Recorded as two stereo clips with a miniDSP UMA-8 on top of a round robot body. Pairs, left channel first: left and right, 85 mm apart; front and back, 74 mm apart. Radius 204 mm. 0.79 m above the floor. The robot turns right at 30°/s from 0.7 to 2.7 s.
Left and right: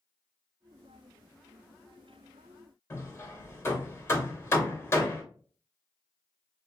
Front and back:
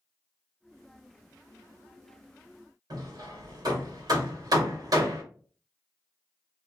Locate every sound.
2.9 s hammering: 150° left, 1.7 m